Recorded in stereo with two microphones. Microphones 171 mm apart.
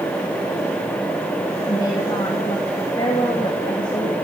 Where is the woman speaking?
25° left (ahead or behind), 2.5 m.